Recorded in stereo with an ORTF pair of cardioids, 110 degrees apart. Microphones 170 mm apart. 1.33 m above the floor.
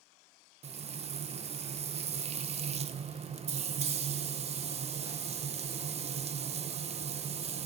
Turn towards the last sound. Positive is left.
turn(degrees=-40)